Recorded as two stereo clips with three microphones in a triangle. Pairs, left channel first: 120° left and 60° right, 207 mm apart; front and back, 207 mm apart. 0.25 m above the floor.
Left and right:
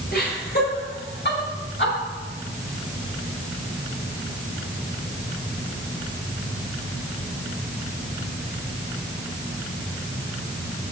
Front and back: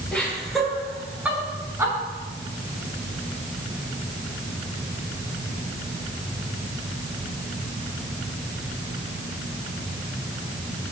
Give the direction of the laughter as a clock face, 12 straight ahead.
9 o'clock.